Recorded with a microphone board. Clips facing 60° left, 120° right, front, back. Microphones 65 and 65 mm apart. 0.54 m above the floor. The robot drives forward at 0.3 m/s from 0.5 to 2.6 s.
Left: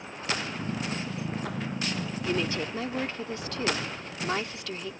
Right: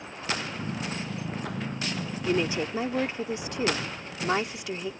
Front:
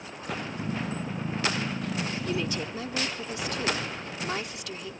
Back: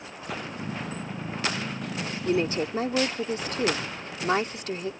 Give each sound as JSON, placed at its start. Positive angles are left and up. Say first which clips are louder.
{"t": 2.2, "sound": "a woman speaking", "louder": "right 4 dB, back 5 dB", "azimuth_deg": 180}